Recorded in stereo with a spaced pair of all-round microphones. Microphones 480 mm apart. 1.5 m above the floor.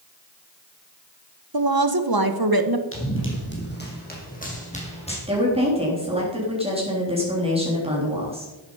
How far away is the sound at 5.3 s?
About 3.5 m.